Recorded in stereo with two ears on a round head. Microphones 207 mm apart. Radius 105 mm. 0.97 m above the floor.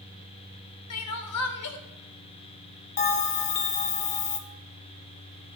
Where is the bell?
30° left (ahead or behind), 0.7 m.